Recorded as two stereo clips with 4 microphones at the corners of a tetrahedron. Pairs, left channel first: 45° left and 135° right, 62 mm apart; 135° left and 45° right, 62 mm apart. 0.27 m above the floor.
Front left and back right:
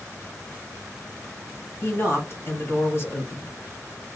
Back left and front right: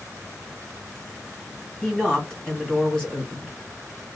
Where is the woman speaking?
65° left, 1.8 m.